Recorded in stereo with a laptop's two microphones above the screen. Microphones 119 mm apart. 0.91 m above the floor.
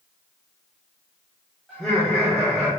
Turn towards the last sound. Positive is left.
turn(degrees=5)  # may be behind; listen again after turning